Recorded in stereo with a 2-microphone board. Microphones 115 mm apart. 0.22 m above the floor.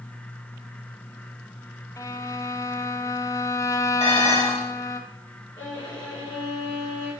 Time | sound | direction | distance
2.0 | a violin | 30° left (ahead or behind) | 0.7 m
4.0 | dishes clattering | 60° left (ahead or behind) | 4 m
5.6 | a violin | 40° left (ahead or behind) | 4 m